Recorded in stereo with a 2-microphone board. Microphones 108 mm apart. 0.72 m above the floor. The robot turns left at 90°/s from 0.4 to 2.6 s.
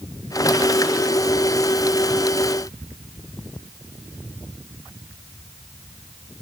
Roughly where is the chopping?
I don't hear chopping.